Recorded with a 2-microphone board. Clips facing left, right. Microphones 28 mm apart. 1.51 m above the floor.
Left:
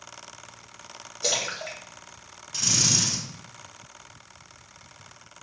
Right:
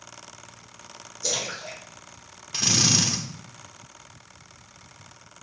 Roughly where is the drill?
Right.